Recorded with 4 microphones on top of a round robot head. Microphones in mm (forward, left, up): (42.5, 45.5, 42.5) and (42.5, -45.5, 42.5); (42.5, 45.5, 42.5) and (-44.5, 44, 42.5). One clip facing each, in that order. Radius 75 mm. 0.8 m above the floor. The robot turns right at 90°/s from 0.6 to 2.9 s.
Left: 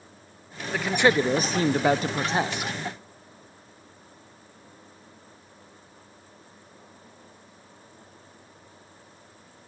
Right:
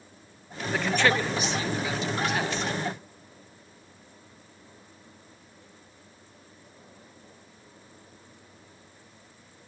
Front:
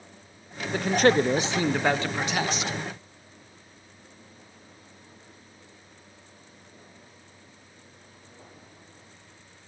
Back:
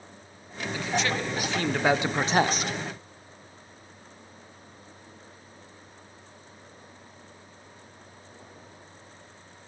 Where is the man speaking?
5° right, 0.5 m; by 2.7 s 175° left, 0.5 m.